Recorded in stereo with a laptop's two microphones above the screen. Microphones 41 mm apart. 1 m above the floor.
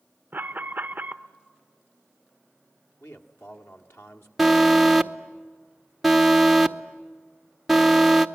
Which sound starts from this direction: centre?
An alarm, at 4.4 s.